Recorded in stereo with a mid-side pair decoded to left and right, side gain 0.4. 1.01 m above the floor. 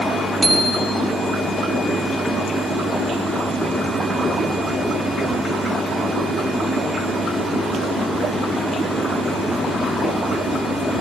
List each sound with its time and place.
0.4 s a bicycle bell: 30° right, 2.5 m